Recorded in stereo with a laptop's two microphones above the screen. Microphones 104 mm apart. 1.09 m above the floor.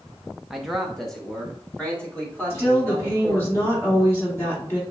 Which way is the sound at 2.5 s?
25° left (ahead or behind).